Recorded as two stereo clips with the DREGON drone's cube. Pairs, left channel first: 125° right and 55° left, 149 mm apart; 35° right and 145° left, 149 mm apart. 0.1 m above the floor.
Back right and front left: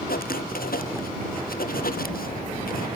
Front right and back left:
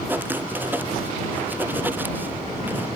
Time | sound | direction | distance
0.1 | writing | 135° right | ?